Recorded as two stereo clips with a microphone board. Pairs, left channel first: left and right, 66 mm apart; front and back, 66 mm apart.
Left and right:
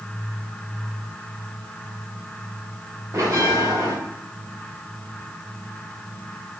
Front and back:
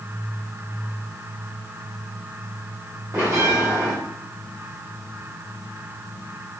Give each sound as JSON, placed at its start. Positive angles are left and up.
{"t": 3.1, "sound": "a bell", "azimuth_deg": -135, "distance_m": 6.5}